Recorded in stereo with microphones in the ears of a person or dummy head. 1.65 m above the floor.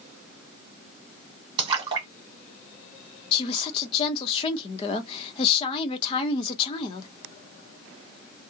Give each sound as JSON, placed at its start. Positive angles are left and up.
{"t": 1.6, "sound": "a splash", "side_deg": -30, "distance_m": 1.2}
{"t": 3.3, "sound": "a woman speaking", "side_deg": 30, "distance_m": 0.7}